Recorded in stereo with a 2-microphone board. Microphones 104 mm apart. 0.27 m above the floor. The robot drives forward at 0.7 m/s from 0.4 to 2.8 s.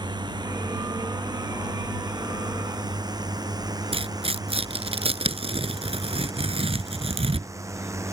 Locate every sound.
0.0 s a drone: 40° right (ahead or behind); by 8.1 s 25° right (ahead or behind)
3.9 s tearing paper: 60° right (ahead or behind)